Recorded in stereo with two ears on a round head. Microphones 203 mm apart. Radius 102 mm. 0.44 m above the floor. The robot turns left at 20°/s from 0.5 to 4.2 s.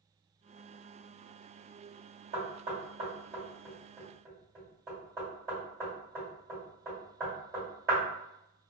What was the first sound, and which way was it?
Knocking, 40° right (ahead or behind).